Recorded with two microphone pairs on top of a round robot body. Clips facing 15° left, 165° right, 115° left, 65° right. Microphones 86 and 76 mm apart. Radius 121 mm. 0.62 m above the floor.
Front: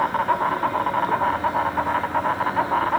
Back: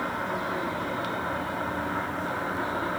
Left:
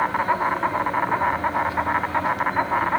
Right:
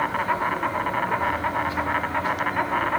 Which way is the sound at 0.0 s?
45° left.